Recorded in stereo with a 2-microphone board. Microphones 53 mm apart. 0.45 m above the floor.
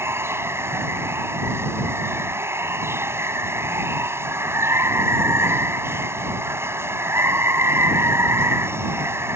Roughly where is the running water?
Right.